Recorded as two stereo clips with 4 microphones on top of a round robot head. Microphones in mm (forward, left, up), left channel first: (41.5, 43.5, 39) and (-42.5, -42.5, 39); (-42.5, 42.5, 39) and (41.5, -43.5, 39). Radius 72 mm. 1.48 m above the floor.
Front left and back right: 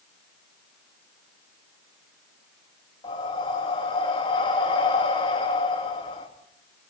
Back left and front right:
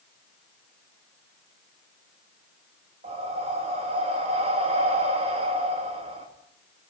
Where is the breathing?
5° right, 3.5 m.